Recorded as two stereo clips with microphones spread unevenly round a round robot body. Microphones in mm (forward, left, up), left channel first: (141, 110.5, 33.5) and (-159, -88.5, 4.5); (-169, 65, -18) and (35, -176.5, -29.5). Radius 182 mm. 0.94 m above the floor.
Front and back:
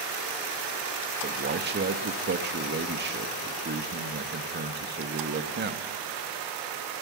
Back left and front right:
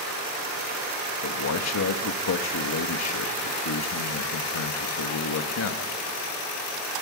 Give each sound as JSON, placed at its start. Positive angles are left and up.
{"t": 1.2, "sound": "a man speaking", "azimuth_deg": 160, "distance_m": 1.6}